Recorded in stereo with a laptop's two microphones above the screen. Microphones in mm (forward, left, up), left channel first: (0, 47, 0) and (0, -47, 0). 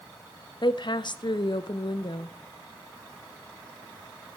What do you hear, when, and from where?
0.6 s a woman speaking: 55° left (ahead or behind), 0.5 m